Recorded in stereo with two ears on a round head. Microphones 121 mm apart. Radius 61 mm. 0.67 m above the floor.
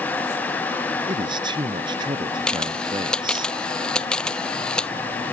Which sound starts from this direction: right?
A man speaking, at 1.1 s.